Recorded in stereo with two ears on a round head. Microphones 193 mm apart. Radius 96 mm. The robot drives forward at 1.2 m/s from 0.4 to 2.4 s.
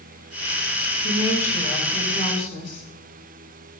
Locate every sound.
1.0 s a woman speaking: 45° left (ahead or behind), 8.5 m; by 2.9 s 40° left (ahead or behind), 9.5 m